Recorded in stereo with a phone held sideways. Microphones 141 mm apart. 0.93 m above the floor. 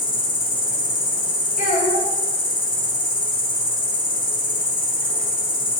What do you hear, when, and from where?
0.0 s an insect: 80° left, 1.1 m
1.6 s a child speaking: 70° left (ahead or behind), 1.4 m